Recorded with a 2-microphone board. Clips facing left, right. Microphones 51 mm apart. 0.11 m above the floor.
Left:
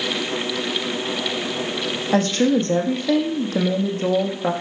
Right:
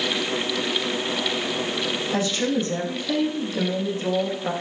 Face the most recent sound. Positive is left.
turn(degrees=50)  # may be behind; listen again after turning